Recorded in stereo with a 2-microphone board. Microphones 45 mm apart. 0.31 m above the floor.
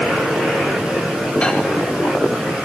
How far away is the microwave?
About 1.1 m.